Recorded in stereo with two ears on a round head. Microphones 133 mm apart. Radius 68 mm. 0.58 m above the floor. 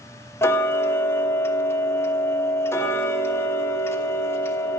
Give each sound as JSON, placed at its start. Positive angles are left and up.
{"t": 0.4, "sound": "ticking", "side_deg": 20, "distance_m": 1.2}